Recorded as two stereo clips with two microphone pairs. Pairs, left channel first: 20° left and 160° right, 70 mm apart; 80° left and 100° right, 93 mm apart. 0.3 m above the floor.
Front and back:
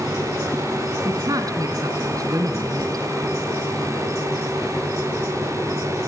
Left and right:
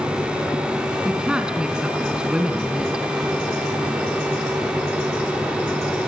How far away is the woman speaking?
About 3.5 m.